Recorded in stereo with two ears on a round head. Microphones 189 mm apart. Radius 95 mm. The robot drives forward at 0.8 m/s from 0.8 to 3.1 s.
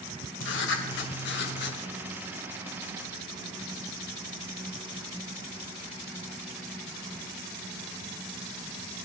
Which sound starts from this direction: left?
Writing, at 0.4 s.